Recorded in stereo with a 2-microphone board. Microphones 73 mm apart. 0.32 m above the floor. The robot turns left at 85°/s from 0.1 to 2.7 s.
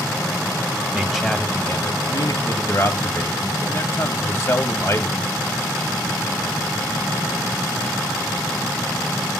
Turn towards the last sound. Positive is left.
turn(degrees=50)